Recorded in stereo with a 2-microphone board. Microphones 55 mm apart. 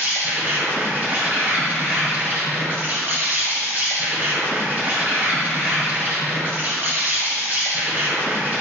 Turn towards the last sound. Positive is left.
turn(degrees=-35)  # may be behind; listen again after turning